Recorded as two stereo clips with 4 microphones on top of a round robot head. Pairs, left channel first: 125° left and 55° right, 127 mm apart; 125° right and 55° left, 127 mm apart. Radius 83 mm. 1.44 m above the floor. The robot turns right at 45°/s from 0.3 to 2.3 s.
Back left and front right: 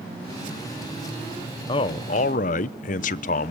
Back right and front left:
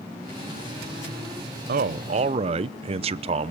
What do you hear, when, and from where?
1.7 s a man speaking: 70° left, 0.6 m; by 3.5 s 100° left, 0.6 m